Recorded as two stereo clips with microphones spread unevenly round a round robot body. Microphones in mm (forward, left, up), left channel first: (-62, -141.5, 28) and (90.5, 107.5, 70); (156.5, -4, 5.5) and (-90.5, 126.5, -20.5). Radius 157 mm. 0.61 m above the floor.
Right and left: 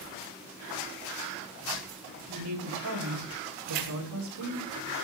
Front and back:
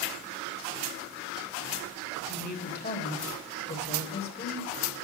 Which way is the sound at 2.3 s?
30° left.